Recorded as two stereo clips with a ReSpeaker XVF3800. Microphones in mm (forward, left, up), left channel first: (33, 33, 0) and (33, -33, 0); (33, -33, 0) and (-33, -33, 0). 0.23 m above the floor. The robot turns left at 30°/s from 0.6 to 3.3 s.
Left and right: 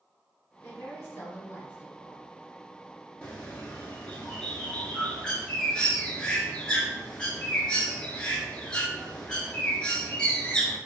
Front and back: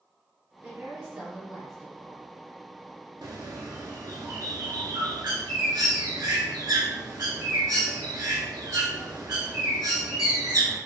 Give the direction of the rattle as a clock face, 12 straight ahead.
No rattle in this recording.